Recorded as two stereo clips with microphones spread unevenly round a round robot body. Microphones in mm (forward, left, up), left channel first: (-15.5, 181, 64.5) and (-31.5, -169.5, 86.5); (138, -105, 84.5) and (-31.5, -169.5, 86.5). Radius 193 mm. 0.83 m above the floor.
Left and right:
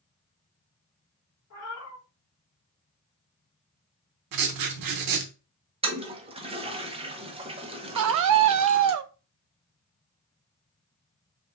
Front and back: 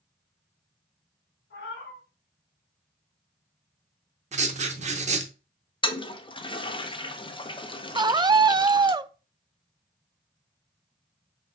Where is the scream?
95° right, 0.5 m.